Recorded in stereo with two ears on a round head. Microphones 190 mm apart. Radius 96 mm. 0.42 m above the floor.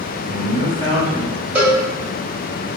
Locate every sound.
0.2 s a man speaking: 30° right (ahead or behind), 1.2 m
1.6 s a cowbell: 5° right (ahead or behind), 1.0 m